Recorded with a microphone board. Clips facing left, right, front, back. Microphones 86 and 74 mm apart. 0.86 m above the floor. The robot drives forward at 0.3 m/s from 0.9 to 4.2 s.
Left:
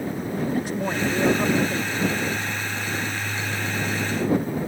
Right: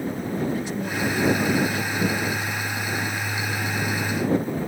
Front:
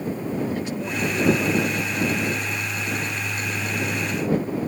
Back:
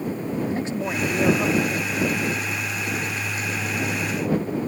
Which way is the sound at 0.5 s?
125° left.